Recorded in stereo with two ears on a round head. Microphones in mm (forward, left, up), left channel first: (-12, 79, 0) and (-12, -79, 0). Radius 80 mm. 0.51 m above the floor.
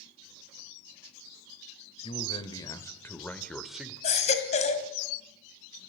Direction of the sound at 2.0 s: 30° left (ahead or behind).